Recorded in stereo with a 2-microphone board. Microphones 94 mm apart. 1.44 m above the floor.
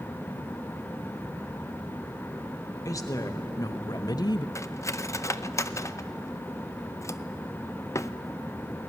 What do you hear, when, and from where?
2.9 s a woman speaking: 35° left (ahead or behind), 1.7 m; by 4.5 s 50° left (ahead or behind), 0.6 m
4.5 s cutlery clinking: 30° left (ahead or behind), 0.6 m